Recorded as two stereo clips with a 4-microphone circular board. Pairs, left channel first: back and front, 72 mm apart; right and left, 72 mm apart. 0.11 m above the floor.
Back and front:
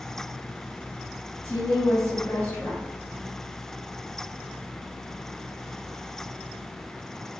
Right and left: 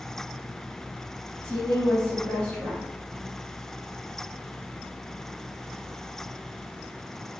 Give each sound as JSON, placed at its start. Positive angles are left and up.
{"t": 1.4, "sound": "a woman speaking", "azimuth_deg": -150, "distance_m": 2.0}